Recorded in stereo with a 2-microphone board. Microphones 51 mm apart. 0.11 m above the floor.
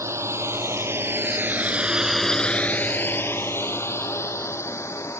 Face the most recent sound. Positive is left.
turn(degrees=70)  # may be behind; listen again after turning